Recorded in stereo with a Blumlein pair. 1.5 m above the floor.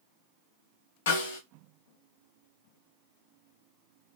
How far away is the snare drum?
About 1.3 m.